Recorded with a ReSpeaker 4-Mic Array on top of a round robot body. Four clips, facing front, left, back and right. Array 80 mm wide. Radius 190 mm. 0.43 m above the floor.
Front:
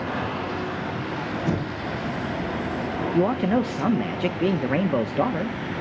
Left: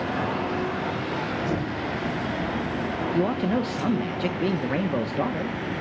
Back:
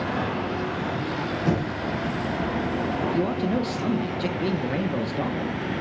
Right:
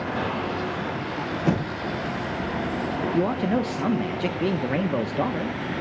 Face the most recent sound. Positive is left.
turn(degrees=-5)